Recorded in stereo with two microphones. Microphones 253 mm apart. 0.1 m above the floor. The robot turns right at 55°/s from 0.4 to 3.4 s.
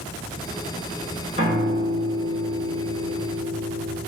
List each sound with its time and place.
1.4 s a piano: 155° right, 1.7 m; by 4.0 s 40° right, 1.7 m